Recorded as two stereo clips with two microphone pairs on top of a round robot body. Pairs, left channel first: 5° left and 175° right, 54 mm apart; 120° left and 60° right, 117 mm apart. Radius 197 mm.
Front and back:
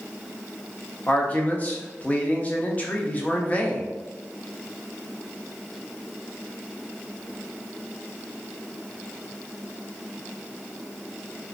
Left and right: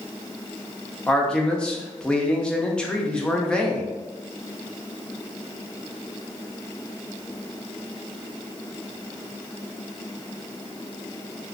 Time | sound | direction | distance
1.1 | a man speaking | 45° left | 0.9 m